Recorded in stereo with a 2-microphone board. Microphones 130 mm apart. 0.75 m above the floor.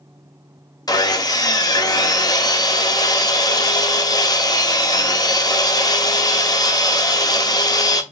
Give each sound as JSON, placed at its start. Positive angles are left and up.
{"t": 0.9, "sound": "sawing", "side_deg": 30, "distance_m": 0.7}